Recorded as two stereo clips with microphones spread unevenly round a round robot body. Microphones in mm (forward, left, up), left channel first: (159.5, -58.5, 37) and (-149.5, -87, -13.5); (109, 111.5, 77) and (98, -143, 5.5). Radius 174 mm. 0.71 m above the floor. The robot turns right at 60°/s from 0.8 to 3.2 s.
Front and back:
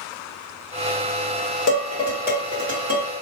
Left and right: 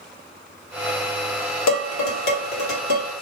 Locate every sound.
1.7 s dishes clattering: 65° left, 1.5 m; by 3.1 s 150° left, 1.5 m